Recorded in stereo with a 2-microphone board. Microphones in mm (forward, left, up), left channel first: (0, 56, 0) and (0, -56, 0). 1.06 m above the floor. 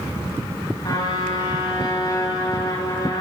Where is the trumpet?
45° left (ahead or behind), 6.5 m.